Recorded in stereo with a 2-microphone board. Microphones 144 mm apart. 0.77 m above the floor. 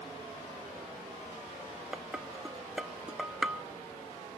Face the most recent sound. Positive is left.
turn(degrees=-5)  # may be behind; listen again after turning